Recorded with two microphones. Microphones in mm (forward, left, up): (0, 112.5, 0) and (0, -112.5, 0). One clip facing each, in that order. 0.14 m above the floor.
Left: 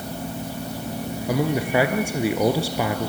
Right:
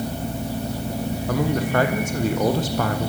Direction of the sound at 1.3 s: 10° left (ahead or behind).